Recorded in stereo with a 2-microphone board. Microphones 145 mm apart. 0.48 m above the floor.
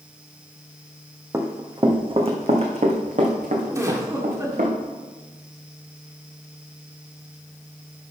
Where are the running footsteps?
20° right (ahead or behind), 1.4 m; by 4.7 s 70° right (ahead or behind), 3 m.